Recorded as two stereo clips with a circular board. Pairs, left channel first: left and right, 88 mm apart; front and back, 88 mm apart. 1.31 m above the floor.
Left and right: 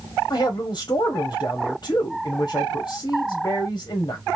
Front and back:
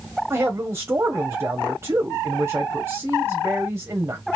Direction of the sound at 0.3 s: 120° left.